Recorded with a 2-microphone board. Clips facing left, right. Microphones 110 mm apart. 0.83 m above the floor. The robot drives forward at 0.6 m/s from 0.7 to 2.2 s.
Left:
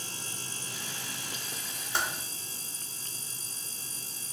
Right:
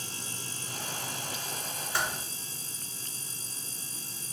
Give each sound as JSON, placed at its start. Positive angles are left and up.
{"t": 1.9, "sound": "typing on a keyboard", "side_deg": 20, "distance_m": 1.0}